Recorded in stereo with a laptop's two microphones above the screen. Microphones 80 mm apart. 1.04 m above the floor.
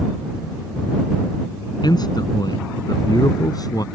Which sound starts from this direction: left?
A man speaking, at 1.8 s.